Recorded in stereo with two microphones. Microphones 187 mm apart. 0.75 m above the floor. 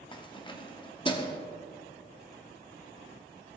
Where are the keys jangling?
25° left (ahead or behind), 0.9 m.